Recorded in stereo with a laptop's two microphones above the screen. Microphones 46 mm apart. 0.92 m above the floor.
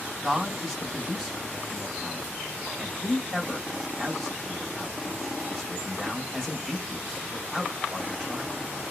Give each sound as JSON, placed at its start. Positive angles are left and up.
{"t": 0.2, "sound": "a man speaking", "side_deg": 15, "distance_m": 1.3}